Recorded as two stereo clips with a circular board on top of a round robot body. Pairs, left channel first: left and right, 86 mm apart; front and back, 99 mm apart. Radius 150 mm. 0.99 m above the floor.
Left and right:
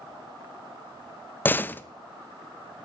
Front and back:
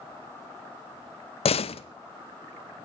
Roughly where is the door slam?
Ahead.